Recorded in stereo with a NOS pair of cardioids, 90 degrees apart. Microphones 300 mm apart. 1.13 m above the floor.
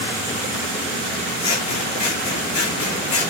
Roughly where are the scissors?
Ahead left.